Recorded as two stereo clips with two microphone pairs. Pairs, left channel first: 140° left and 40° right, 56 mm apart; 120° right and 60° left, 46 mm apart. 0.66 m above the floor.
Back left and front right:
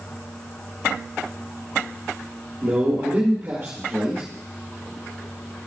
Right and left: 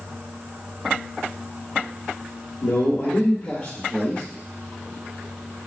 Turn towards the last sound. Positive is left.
turn(degrees=-75)